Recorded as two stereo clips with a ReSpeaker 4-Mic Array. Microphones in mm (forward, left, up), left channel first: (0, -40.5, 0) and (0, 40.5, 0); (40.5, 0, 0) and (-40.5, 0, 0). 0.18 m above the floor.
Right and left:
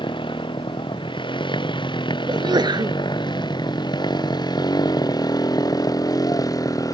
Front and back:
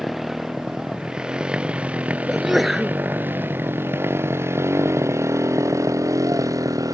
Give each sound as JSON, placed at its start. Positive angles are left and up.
{"t": 0.0, "sound": "a motorcycle", "azimuth_deg": -90}
{"t": 2.3, "sound": "a sneeze", "azimuth_deg": 90}